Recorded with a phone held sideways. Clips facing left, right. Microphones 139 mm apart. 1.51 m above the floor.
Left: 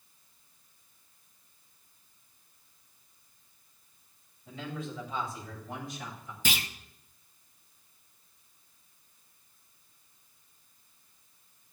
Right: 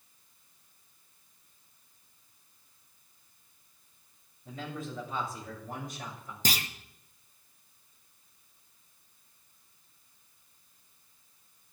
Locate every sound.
4.5 s a man speaking: 45° right (ahead or behind), 8.5 m; by 6.3 s 50° right (ahead or behind), 7.5 m
6.5 s a clunk: 40° right (ahead or behind), 1.1 m